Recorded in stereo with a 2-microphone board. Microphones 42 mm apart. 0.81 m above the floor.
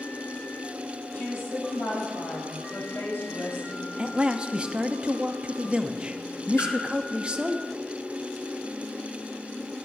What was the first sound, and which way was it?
A woman speaking, 80° left.